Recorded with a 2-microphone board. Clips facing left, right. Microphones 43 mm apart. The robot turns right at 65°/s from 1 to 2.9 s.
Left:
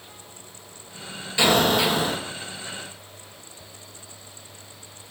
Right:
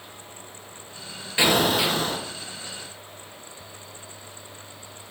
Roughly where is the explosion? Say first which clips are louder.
Left 1 dB; ahead right.